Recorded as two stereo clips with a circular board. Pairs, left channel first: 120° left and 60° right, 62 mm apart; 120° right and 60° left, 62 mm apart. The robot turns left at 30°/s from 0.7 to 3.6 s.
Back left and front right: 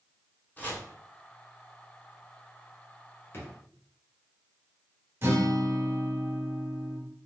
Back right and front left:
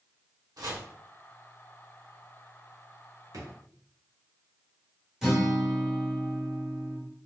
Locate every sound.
0.6 s chopping: 60° left, 1.0 m; by 0.8 s 55° left, 1.0 m
3.3 s a drawer: 70° left, 1.0 m; by 3.5 s 65° left, 1.0 m
5.2 s a guitar: 20° right, 1.2 m